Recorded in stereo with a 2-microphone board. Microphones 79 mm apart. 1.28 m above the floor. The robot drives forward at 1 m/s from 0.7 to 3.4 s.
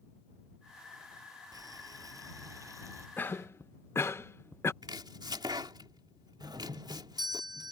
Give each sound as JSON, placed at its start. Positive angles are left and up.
{"t": 1.5, "sound": "boiling", "side_deg": -55}
{"t": 3.2, "sound": "a cough", "side_deg": 25}
{"t": 4.8, "sound": "chopping", "side_deg": -65}
{"t": 6.4, "sound": "a doorbell", "side_deg": -60}